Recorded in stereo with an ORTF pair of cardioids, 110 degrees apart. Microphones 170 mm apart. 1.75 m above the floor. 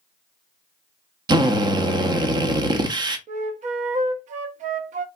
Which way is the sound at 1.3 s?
25° right.